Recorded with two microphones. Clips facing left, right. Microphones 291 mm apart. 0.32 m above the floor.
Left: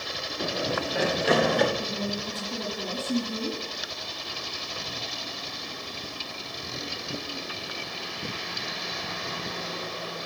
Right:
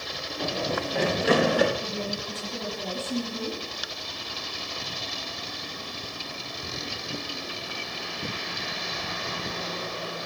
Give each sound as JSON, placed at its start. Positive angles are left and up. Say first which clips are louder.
{"t": 0.4, "sound": "running footsteps", "louder": "even", "side_deg": 15, "distance_m": 2.5}
{"t": 1.8, "sound": "a woman speaking", "louder": "left 1 dB", "side_deg": 65, "distance_m": 6.0}